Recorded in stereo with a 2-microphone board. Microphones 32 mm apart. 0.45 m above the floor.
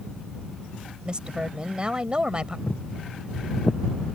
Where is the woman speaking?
30° right (ahead or behind).